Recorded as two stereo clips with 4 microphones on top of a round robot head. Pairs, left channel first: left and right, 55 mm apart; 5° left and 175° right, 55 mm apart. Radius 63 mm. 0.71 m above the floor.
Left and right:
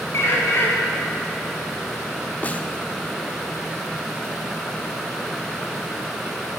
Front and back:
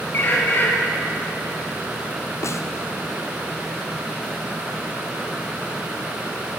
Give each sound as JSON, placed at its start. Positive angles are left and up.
{"t": 0.1, "sound": "a bird", "azimuth_deg": 55, "distance_m": 6.0}
{"t": 2.4, "sound": "a snare drum", "azimuth_deg": 30, "distance_m": 1.2}